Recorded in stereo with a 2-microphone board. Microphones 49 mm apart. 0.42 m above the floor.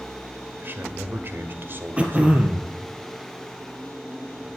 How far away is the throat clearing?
About 1.6 m.